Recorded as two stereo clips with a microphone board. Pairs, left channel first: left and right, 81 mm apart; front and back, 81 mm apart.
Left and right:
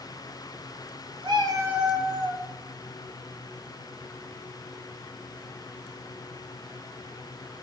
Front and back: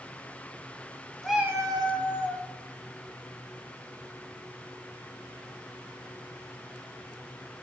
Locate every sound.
1.2 s a cat meowing: 90° right, 0.6 m; by 2.4 s 165° left, 1.2 m